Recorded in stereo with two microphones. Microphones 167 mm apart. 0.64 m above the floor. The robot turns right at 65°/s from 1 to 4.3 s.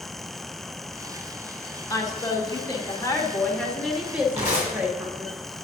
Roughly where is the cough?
I don't hear a cough.